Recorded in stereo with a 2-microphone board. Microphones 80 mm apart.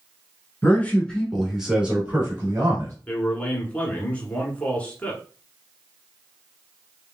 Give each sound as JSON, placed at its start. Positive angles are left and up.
{"t": 0.6, "sound": "a man speaking", "side_deg": 25, "distance_m": 1.4}
{"t": 3.1, "sound": "a man speaking", "side_deg": 20, "distance_m": 1.2}